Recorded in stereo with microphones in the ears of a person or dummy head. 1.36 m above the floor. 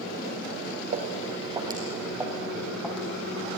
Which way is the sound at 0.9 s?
30° right (ahead or behind).